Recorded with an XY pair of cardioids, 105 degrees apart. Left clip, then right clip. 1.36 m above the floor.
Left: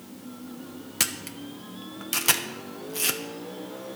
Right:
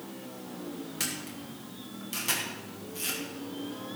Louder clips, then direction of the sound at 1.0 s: Left 7 dB; 65° left.